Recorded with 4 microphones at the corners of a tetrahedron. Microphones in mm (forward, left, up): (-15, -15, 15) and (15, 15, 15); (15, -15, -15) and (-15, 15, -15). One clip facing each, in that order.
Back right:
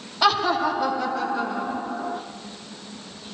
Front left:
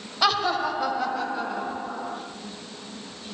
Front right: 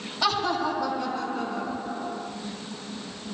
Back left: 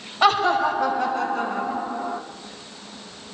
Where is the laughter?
135° left, 1.9 m; by 2.2 s 125° left, 3.5 m.